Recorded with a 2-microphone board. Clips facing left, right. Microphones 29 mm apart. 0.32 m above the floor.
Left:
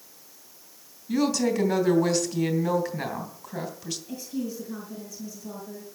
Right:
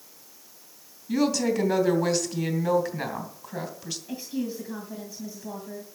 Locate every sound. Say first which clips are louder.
1.1 s a woman speaking: even; 10° right (ahead or behind), 2.5 m
4.1 s a woman speaking: right 2 dB; 35° right (ahead or behind), 2.5 m